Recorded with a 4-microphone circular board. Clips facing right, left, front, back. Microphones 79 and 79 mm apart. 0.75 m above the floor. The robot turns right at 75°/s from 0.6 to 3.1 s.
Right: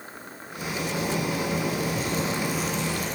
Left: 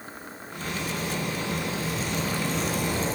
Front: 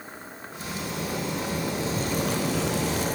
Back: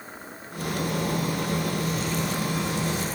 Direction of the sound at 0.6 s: 155° right.